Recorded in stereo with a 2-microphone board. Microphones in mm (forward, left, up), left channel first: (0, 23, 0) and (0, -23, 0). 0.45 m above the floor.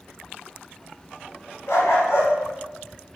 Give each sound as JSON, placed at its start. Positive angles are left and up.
{"t": 1.7, "sound": "a dog barking", "side_deg": 80, "distance_m": 2.5}